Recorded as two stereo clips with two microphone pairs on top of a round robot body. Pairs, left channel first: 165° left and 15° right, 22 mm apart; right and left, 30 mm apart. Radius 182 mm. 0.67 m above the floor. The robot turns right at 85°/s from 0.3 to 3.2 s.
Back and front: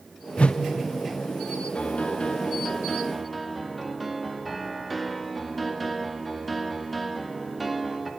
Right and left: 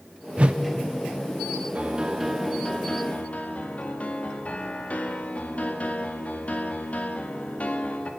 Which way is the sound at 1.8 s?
135° left.